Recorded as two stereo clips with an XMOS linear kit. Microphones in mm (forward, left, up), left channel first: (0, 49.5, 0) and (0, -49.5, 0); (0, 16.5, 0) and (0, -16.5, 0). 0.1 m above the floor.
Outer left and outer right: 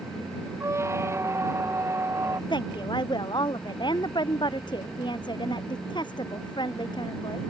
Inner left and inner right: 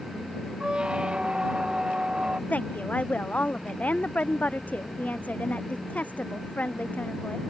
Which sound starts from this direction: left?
A woman speaking, at 2.5 s.